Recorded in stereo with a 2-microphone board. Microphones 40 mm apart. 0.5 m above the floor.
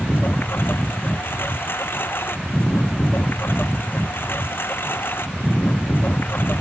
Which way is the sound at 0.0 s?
60° left (ahead or behind).